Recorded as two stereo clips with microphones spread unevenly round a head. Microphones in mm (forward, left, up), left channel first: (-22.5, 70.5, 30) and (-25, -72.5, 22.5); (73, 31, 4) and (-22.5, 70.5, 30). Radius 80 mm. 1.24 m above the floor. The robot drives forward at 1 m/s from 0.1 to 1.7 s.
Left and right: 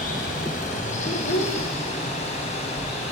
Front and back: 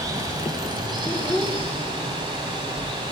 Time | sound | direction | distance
0.0 | running water | 110° left | 4.5 m
1.0 | a child speaking | 55° left | 3 m